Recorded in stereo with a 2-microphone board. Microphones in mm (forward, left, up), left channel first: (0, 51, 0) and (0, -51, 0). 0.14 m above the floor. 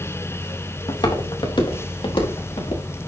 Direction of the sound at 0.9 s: 55° left (ahead or behind).